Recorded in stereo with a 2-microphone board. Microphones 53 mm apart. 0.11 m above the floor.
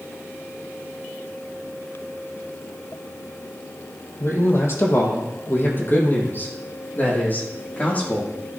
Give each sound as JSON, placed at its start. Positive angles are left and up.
{"t": 4.2, "sound": "a man speaking", "side_deg": 55, "distance_m": 3.5}